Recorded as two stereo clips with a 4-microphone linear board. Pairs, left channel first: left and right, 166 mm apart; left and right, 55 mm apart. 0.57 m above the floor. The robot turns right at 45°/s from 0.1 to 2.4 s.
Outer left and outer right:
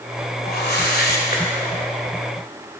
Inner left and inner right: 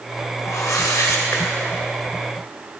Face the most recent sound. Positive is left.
turn(degrees=165)